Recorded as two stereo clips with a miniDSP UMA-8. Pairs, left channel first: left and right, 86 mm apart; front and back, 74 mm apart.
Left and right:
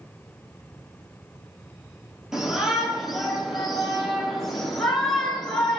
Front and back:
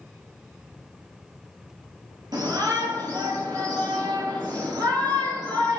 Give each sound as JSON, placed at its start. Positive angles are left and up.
{"t": 2.3, "sound": "a shout", "azimuth_deg": -175, "distance_m": 4.5}